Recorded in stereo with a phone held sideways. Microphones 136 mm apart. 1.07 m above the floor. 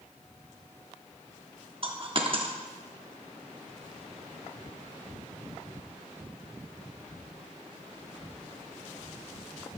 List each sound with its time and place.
1.8 s a dropped coin: 40° right (ahead or behind), 1.1 m